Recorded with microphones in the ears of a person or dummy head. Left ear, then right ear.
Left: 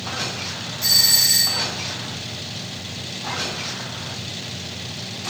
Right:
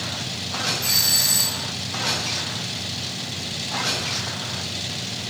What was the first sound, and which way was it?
A doorbell, 75° left (ahead or behind).